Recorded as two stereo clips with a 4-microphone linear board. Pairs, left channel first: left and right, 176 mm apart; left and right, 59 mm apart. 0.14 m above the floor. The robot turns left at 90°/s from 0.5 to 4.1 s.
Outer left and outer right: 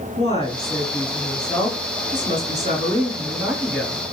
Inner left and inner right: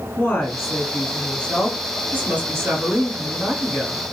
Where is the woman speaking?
115° left, 1.8 m; by 4.0 s 155° left, 1.8 m.